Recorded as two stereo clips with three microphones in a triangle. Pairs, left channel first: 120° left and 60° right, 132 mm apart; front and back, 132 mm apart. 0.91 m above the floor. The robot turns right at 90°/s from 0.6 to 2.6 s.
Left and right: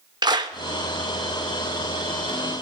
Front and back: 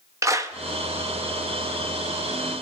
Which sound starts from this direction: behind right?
A clap, at 0.2 s.